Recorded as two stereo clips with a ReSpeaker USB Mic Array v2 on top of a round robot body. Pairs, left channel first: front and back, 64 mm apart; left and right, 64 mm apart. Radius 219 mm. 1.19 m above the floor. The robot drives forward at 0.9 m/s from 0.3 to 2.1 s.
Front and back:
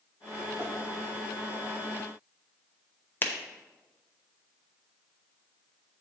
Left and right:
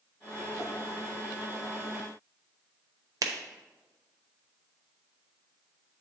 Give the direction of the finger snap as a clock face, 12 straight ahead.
2 o'clock.